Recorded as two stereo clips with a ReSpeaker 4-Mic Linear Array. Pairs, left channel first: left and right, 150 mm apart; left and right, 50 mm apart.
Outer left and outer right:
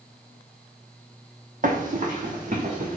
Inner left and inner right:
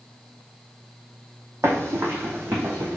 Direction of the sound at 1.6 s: 65° right (ahead or behind).